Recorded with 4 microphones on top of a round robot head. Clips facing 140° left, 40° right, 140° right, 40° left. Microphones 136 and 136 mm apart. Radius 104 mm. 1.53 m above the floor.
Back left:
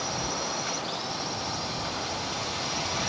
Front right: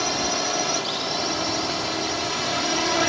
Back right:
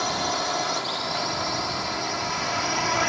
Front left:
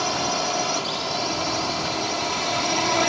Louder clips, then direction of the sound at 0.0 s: Front right 6 dB, front left 2 dB; 40° right.